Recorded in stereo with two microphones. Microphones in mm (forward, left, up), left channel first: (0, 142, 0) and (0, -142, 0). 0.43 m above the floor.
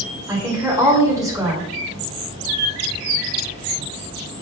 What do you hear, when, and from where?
0.3 s a woman speaking: 10° right (ahead or behind), 1.7 m